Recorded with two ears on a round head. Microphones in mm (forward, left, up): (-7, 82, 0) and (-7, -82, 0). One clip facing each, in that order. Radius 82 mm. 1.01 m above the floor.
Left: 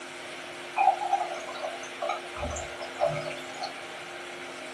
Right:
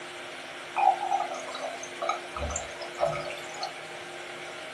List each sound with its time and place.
0.8 s a running tap: 55° right (ahead or behind), 0.8 m